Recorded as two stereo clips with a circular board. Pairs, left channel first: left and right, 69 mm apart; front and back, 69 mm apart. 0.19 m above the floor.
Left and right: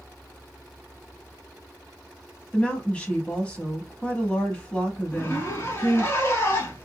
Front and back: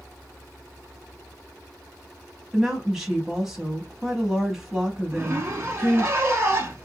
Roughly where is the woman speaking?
Left.